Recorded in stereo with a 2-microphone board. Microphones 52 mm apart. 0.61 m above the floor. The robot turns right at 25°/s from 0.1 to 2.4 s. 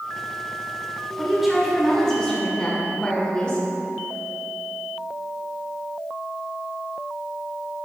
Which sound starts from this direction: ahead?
A woman speaking, at 1.2 s.